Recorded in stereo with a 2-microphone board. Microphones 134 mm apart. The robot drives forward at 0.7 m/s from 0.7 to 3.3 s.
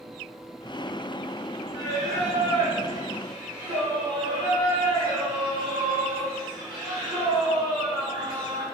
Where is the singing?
55° right (ahead or behind), 1.2 m; by 8.7 s 40° right (ahead or behind), 1.6 m.